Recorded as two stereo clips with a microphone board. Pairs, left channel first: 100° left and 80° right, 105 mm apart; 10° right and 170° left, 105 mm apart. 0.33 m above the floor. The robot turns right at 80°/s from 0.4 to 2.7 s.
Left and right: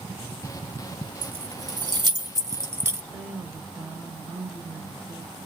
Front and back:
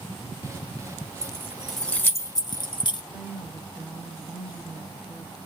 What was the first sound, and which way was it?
Keys jangling, 145° right.